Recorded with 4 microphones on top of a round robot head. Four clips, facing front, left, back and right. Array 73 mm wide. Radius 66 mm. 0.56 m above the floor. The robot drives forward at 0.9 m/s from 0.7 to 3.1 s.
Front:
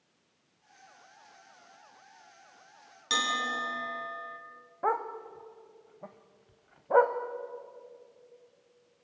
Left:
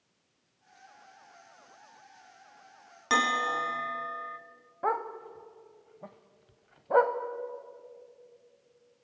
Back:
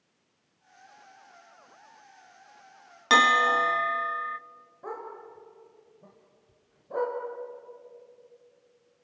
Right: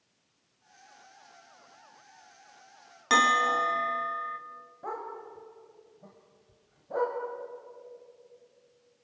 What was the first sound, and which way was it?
A bell, 175° right.